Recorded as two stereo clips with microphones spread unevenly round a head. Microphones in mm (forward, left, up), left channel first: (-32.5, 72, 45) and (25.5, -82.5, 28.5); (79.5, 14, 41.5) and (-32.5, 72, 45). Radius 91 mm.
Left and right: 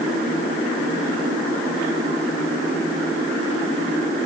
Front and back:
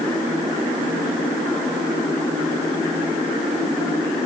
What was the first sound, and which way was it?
Only background noise.